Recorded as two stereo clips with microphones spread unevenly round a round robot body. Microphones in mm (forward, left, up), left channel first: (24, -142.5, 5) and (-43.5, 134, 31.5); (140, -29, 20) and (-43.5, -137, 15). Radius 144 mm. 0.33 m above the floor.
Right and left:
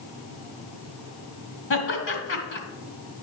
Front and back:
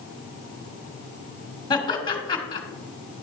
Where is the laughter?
35° right, 2.5 m.